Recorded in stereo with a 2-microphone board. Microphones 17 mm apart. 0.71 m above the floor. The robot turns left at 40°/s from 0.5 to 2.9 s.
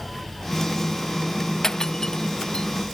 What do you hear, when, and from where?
1.6 s breaking glass: 30° left (ahead or behind); by 2.7 s 75° left (ahead or behind)